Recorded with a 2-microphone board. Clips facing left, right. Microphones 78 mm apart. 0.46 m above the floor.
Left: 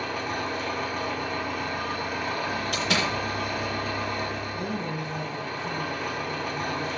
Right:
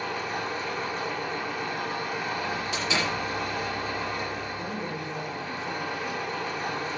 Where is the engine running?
55° left (ahead or behind), 8 m.